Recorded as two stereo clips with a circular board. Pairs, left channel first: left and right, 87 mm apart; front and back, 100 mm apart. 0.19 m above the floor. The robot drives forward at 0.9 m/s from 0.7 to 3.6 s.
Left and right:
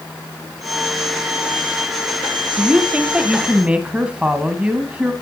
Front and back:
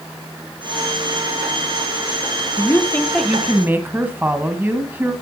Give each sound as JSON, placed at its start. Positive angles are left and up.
{"t": 2.6, "sound": "a woman speaking", "azimuth_deg": -25, "distance_m": 1.2}